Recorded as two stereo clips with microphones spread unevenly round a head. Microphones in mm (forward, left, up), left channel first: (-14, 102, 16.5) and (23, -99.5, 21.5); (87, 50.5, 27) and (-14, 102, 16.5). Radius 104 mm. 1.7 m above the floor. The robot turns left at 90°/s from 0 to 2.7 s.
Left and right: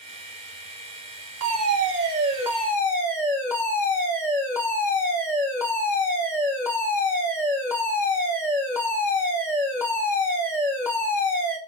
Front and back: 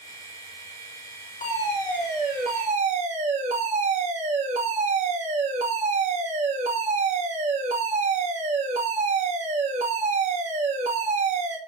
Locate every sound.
1.4 s a fire alarm: 65° right, 2.5 m; by 11.6 s straight behind, 2.5 m